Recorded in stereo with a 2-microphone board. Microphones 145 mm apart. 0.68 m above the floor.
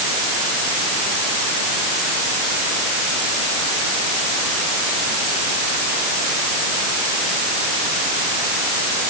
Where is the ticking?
I don't hear ticking.